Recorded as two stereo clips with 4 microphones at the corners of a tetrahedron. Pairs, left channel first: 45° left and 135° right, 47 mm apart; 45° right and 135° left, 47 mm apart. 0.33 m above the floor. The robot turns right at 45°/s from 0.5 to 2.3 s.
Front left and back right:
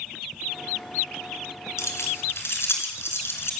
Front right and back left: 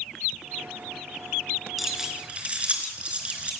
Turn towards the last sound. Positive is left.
turn(degrees=70)